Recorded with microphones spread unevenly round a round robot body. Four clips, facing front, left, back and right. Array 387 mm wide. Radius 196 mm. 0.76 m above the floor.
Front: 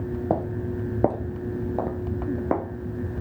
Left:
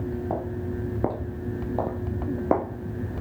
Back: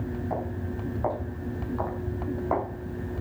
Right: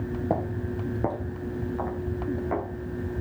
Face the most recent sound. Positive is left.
turn(degrees=65)